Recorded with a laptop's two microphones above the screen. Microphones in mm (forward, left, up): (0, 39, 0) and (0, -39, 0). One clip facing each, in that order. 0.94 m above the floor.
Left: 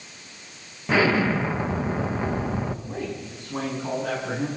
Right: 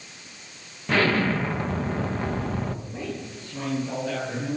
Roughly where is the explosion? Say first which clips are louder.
Left 2 dB; centre.